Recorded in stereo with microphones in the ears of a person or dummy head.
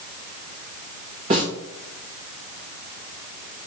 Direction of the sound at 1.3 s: 40° right (ahead or behind).